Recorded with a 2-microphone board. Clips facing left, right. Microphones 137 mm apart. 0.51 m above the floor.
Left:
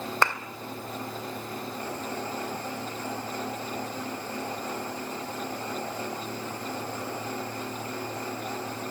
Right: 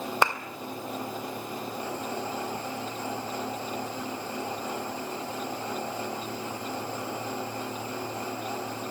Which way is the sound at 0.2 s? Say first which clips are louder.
Right 1 dB; 15° right (ahead or behind).